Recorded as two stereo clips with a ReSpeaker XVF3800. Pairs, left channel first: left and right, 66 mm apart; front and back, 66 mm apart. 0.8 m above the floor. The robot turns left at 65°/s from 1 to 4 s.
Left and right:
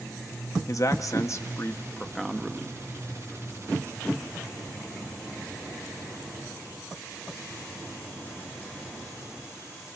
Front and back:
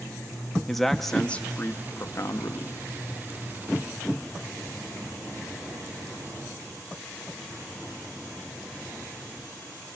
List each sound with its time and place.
0.7 s a man speaking: 85° left, 1.0 m; by 2.8 s 30° right, 1.0 m